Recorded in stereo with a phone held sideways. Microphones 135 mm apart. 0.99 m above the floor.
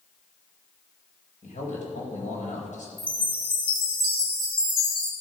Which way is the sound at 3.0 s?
40° left (ahead or behind).